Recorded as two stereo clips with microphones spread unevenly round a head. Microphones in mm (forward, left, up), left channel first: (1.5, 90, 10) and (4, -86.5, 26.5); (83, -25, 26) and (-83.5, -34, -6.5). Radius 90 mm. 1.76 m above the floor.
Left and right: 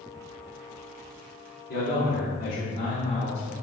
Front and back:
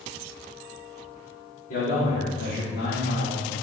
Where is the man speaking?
55° left, 2.5 m; by 3.5 s 30° left, 2.5 m.